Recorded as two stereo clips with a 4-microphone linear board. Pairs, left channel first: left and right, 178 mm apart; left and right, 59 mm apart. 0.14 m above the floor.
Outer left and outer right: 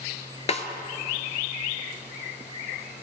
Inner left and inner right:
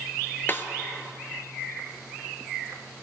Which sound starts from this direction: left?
A snare drum, at 0.5 s.